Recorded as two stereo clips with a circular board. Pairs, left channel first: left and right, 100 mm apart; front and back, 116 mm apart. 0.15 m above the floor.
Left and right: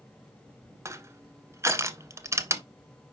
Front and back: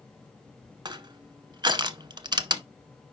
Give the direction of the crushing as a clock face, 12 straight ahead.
5 o'clock.